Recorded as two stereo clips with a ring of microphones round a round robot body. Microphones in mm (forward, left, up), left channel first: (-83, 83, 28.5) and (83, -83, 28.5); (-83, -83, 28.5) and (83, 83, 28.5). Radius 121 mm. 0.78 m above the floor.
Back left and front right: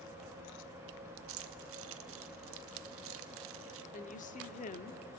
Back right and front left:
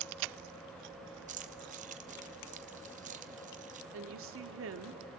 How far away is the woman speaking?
About 1.7 m.